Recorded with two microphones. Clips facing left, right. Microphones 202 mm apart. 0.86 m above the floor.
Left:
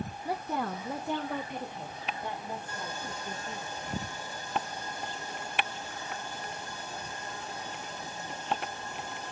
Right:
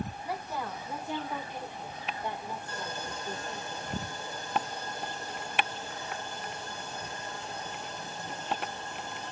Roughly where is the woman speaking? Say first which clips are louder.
Left 7 dB; left.